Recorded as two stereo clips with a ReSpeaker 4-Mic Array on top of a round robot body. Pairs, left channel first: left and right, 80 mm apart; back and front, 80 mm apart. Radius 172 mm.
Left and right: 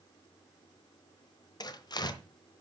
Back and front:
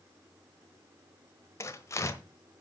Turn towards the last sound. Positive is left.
turn(degrees=125)